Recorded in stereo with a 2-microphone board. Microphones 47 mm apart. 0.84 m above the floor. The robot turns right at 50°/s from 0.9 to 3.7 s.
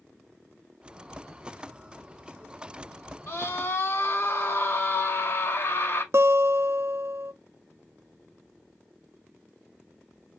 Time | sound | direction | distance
3.3 | a scream | 75° left (ahead or behind) | 2.5 m
6.1 | a guitar | 60° right (ahead or behind) | 0.6 m